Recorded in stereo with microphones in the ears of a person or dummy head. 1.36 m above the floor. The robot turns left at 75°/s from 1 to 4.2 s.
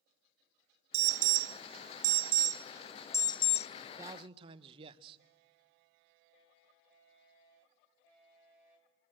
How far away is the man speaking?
About 1.2 m.